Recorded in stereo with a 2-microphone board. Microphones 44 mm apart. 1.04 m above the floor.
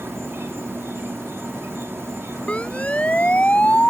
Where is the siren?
30° left (ahead or behind).